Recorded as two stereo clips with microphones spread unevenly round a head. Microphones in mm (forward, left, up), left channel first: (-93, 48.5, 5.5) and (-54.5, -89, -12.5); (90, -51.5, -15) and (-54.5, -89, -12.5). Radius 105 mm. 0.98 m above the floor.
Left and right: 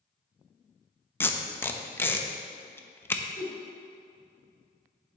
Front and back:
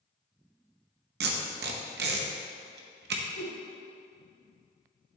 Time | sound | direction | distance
1.2 | tape being pulled | 175° right | 0.8 m
3.4 | a whoosh | 50° left | 1.5 m